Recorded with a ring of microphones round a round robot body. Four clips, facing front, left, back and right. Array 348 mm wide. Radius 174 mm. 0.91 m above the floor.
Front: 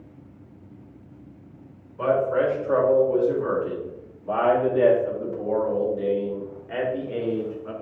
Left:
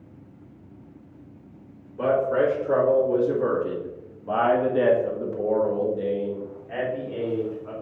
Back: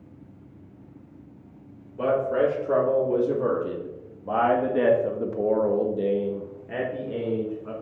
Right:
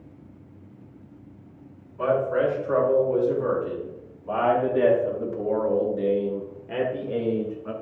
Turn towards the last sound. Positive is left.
turn(degrees=-100)